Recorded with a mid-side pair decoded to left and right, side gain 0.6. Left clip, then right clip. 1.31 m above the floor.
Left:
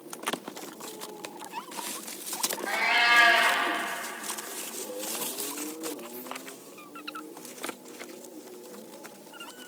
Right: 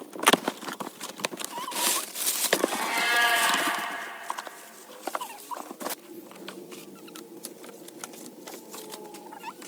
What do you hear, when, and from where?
2.7 s a cat meowing: 65° left, 3 m